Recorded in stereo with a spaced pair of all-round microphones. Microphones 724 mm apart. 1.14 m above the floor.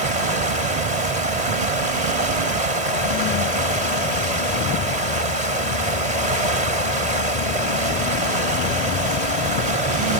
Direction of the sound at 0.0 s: 60° right (ahead or behind).